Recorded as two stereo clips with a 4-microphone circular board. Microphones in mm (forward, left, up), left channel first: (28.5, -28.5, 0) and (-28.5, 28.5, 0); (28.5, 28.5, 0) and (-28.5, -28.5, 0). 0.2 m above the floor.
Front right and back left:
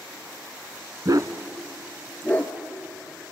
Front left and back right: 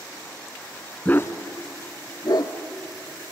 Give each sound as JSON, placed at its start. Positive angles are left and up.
{"t": 1.1, "sound": "a dog barking", "azimuth_deg": 115, "distance_m": 0.9}